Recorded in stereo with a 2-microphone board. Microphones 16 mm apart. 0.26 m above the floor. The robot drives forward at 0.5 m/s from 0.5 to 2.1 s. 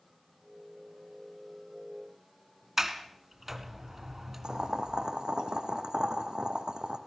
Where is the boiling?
75° right (ahead or behind), 3 m.